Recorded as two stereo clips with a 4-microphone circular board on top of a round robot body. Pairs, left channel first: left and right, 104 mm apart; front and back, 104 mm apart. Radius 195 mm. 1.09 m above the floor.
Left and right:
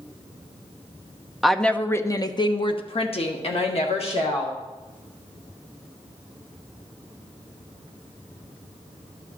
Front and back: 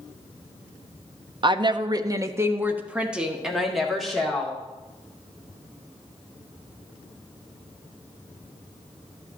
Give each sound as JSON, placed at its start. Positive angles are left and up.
{"t": 1.4, "sound": "a woman speaking", "azimuth_deg": -175, "distance_m": 0.8}